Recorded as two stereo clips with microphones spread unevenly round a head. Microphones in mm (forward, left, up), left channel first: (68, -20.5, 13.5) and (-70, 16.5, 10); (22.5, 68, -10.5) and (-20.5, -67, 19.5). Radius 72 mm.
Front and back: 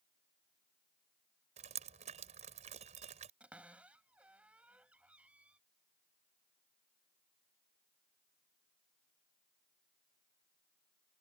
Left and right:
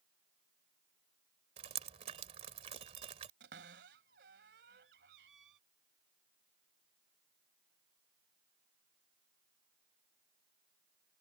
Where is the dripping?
155° right.